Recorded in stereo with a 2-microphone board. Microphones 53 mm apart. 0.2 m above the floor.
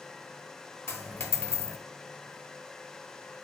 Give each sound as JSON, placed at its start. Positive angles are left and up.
{"t": 0.9, "sound": "a dropped coin", "side_deg": 50, "distance_m": 1.0}